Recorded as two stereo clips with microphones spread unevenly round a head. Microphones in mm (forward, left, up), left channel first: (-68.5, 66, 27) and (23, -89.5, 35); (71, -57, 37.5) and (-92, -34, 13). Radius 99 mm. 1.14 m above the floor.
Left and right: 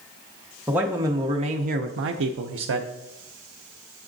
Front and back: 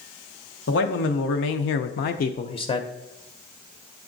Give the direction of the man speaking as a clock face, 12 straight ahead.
11 o'clock.